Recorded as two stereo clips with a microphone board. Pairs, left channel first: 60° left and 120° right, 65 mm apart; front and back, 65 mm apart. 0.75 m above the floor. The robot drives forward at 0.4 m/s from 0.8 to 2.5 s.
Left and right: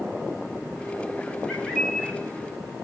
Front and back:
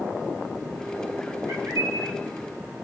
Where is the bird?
140° left, 1.5 m; by 2.2 s 145° left, 1.8 m.